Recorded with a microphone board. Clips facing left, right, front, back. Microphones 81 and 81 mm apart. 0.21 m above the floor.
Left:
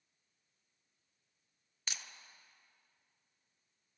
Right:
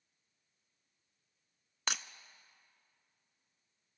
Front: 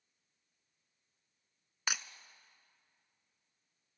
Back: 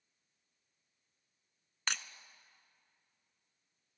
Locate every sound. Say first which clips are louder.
1.9 s breaking glass: right 9 dB, front 1 dB; 80° right, 0.7 m